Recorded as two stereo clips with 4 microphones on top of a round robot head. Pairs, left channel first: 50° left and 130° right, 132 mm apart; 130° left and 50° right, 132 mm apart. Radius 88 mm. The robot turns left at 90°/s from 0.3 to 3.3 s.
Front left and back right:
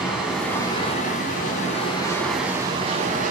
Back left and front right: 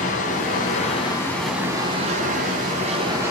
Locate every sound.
0.0 s running water: 145° left, 4 m; by 3.3 s 125° right, 4 m